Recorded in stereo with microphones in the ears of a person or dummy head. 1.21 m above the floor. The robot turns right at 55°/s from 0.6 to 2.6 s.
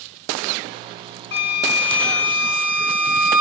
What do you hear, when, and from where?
1.3 s a flute: 120° left, 1.0 m; by 3.4 s 170° right, 1.0 m